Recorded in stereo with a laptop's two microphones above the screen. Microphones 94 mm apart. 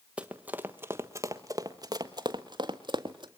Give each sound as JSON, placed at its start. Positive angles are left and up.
{"t": 0.2, "sound": "running footsteps", "side_deg": -10, "distance_m": 1.4}